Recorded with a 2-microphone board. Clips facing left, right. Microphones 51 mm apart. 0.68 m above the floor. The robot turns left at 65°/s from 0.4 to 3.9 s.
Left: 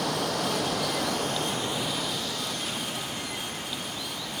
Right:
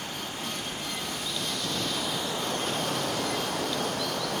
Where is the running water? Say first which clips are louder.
Left 8 dB; 105° left; by 4.4 s 120° right.